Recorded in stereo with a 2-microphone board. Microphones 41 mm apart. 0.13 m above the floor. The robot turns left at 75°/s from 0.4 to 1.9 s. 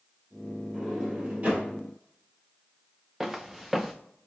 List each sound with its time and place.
0.7 s a sliding door: 10° left (ahead or behind), 2.5 m; by 1.7 s 50° right (ahead or behind), 2.5 m
3.2 s footsteps: 5° right (ahead or behind), 0.5 m